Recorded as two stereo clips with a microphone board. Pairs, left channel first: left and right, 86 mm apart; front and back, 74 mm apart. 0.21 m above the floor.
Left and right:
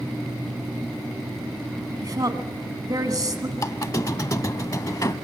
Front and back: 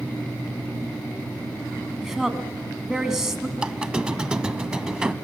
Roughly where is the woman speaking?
Right.